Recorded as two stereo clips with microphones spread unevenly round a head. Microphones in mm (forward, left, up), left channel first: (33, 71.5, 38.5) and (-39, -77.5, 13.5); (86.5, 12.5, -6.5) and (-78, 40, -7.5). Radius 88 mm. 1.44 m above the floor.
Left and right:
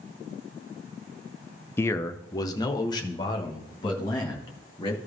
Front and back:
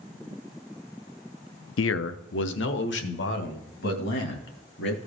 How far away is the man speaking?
About 0.5 m.